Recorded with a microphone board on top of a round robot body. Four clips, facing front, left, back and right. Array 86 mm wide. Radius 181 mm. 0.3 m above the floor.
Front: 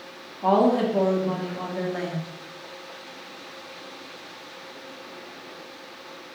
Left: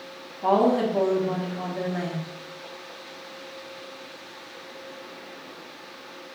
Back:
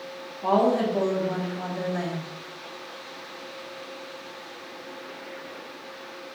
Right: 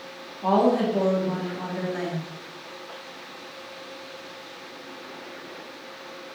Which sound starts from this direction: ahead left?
A woman speaking, at 0.4 s.